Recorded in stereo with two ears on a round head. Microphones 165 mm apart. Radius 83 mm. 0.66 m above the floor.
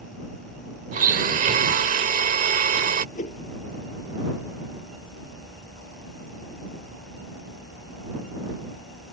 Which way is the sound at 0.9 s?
40° right (ahead or behind).